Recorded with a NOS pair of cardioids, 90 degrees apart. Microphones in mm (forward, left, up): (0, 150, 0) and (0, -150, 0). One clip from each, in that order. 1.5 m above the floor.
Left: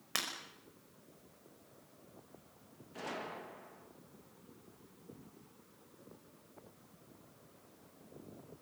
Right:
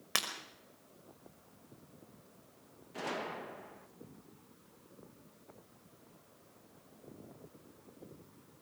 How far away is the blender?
No blender in this recording.